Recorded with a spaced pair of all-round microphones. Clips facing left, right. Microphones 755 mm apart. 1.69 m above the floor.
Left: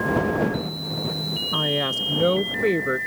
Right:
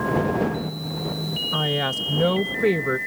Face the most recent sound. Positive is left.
turn(degrees=-35)  # may be behind; listen again after turning